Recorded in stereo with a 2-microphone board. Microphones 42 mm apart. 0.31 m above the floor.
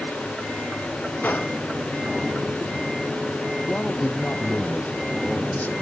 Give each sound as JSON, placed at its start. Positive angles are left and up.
{"t": 1.2, "sound": "a gunshot", "side_deg": 50}
{"t": 3.7, "sound": "a man speaking", "side_deg": 40}